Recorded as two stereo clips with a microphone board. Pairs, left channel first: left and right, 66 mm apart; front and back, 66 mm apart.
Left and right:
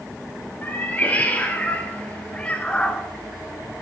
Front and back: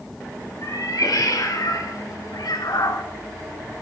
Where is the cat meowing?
25° left, 2.5 m; by 3.0 s 10° left, 1.1 m.